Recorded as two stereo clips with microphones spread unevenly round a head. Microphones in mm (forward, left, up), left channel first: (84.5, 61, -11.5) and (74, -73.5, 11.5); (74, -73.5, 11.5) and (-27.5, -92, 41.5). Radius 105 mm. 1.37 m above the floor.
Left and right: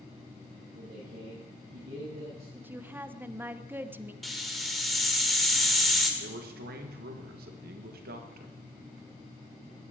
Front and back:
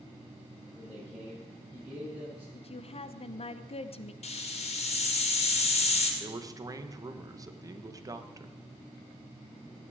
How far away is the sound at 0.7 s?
About 8.5 m.